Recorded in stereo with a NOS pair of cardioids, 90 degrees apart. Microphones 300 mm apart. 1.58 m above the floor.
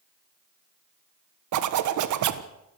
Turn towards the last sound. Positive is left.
turn(degrees=-65)